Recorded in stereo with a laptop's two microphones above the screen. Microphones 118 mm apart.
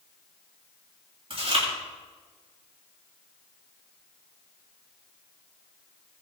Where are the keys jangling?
No keys jangling in this recording.